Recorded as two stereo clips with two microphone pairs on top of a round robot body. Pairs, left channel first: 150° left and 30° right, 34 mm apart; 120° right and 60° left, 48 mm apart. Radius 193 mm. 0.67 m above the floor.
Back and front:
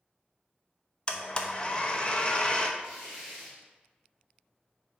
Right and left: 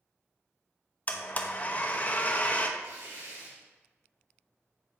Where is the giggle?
I don't hear a giggle.